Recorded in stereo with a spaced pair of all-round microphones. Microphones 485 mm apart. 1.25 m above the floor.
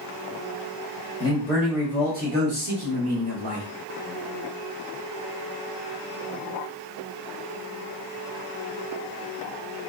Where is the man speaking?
10° left (ahead or behind), 1.2 m; by 3.7 s 65° right (ahead or behind), 1.3 m.